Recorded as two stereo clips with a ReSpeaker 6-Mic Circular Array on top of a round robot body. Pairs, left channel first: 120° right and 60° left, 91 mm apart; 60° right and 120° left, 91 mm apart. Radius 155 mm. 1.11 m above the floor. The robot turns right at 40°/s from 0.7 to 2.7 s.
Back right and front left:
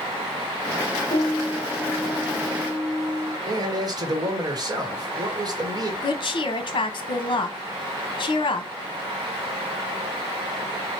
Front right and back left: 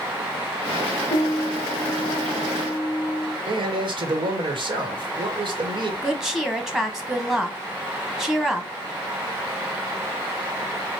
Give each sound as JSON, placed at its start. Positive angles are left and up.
{"t": 1.1, "sound": "a piano", "azimuth_deg": -95, "distance_m": 0.7}
{"t": 3.5, "sound": "a man speaking", "azimuth_deg": 100, "distance_m": 1.6}
{"t": 6.0, "sound": "a woman speaking", "azimuth_deg": -155, "distance_m": 0.8}